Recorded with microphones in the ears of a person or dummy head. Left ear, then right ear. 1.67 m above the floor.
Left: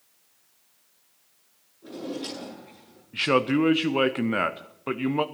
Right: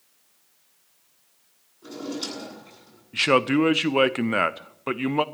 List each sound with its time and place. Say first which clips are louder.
1.8 s a drawer: right 2 dB; 80° right, 8.5 m
3.1 s a man speaking: right 3 dB; 20° right (ahead or behind), 0.6 m